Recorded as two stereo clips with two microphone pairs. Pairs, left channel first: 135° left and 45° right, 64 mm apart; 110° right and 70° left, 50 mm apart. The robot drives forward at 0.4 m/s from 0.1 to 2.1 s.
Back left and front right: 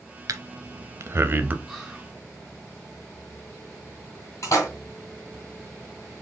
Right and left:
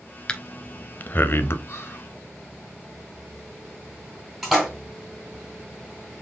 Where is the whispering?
135° right, 2.5 m; by 2.1 s 140° right, 3 m.